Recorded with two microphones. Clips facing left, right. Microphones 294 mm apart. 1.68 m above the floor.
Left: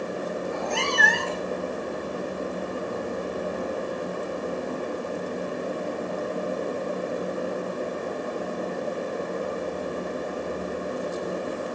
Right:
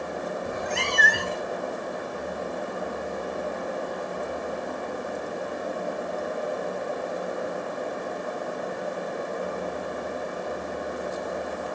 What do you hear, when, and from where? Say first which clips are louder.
0.5 s a cat meowing: left 2 dB; 20° right (ahead or behind), 1.5 m; by 1.5 s 15° right (ahead or behind), 1.3 m